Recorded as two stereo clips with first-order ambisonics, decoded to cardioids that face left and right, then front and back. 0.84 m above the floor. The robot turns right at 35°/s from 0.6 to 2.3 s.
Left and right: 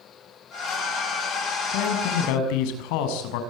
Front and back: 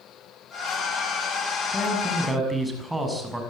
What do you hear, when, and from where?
1.7 s a man speaking: 75° left, 6.5 m; by 3.4 s 95° left, 6.5 m